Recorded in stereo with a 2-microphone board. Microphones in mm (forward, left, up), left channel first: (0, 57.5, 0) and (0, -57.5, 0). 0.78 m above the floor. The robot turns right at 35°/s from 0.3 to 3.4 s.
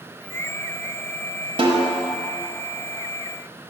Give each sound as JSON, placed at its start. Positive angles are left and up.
{"t": 1.6, "sound": "a snare drum", "side_deg": -45, "distance_m": 1.0}